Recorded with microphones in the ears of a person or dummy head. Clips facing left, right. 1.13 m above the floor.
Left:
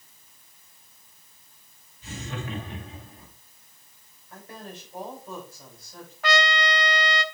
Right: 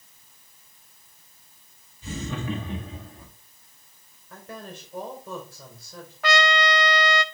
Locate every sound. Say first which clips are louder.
2.0 s laughter: right 5 dB; 75° right (ahead or behind), 1.4 m; by 3.3 s 50° right (ahead or behind), 2.5 m
4.3 s a woman speaking: right 2 dB; 50° right (ahead or behind), 3.5 m
6.2 s a trumpet: right 2 dB; 65° right (ahead or behind), 0.5 m